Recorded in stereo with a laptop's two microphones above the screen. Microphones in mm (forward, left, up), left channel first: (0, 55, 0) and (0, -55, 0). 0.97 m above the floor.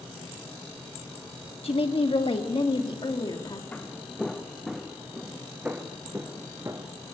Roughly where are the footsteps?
Centre.